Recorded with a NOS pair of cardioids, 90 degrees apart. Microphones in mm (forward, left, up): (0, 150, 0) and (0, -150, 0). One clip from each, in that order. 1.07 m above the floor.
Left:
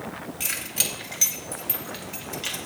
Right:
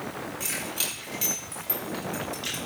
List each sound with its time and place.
0.4 s keys jangling: 40° left, 4 m; by 2.6 s 30° left, 5 m